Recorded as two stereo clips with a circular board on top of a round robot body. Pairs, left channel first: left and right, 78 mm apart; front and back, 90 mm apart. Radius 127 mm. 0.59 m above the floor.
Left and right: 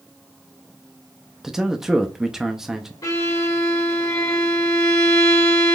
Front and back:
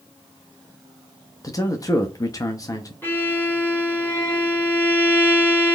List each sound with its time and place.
1.4 s a man speaking: 10° right, 0.6 m
3.0 s a violin: 65° left, 2 m